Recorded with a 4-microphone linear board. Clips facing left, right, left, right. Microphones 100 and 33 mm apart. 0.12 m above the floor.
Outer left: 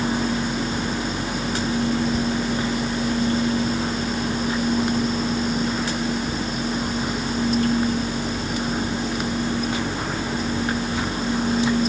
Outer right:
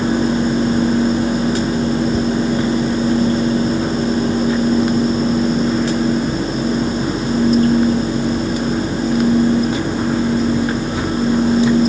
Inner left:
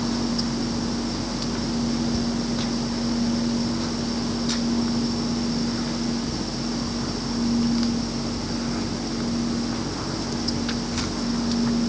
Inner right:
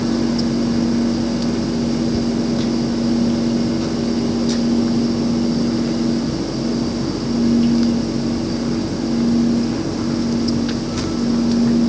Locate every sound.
Only background noise.